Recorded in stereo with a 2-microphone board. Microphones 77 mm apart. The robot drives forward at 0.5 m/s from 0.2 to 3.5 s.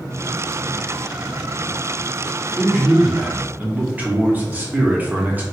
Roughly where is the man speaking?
Centre.